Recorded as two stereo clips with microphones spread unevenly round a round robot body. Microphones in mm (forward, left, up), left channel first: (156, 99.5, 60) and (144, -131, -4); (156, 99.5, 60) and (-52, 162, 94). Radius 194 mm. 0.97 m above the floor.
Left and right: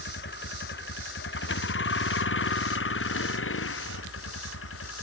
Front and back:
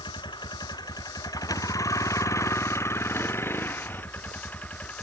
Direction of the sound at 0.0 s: 50° left.